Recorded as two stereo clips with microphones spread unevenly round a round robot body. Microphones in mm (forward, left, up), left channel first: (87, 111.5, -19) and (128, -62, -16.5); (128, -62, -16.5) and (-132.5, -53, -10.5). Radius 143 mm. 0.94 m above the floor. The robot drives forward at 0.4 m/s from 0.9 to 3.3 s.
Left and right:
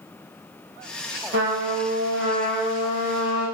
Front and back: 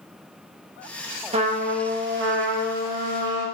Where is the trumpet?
115° right, 0.7 m; by 3.5 s 150° right, 1.2 m.